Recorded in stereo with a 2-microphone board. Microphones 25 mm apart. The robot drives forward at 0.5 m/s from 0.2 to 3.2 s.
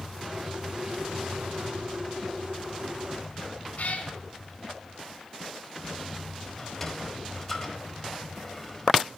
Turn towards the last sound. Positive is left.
turn(degrees=5)  # may be behind; listen again after turning